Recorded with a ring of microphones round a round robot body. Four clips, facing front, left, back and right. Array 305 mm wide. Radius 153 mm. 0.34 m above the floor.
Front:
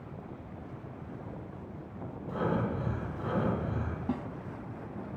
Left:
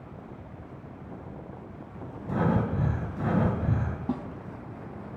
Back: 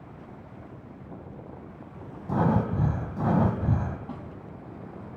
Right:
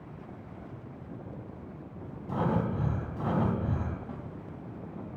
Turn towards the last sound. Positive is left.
turn(degrees=70)